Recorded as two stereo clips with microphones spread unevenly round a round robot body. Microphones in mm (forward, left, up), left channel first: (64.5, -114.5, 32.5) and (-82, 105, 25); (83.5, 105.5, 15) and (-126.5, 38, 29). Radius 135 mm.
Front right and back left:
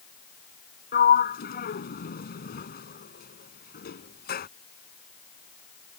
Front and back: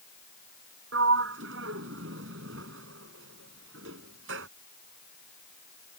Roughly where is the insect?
No insect in this recording.